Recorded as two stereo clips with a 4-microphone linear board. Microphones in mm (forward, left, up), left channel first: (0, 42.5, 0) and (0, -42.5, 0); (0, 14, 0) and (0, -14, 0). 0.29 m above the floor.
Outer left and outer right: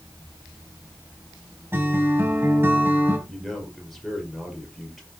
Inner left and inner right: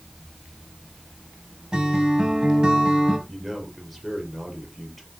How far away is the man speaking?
About 5.5 m.